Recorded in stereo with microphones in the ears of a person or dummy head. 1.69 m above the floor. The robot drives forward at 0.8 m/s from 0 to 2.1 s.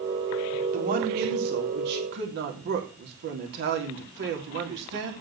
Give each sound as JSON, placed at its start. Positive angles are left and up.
{"t": 0.7, "sound": "a woman speaking", "side_deg": -50, "distance_m": 3.5}